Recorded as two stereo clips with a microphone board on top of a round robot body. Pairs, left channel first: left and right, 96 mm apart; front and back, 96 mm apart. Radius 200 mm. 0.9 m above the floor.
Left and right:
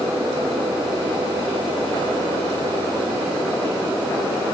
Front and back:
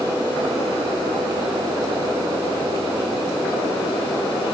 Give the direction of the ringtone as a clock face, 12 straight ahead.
I don't hear a ringtone.